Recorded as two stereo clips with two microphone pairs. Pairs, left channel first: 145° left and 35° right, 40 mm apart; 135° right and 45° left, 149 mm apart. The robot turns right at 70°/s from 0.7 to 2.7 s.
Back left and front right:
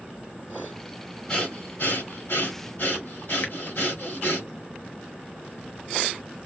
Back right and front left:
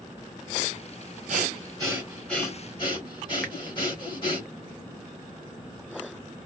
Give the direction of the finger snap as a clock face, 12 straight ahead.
7 o'clock.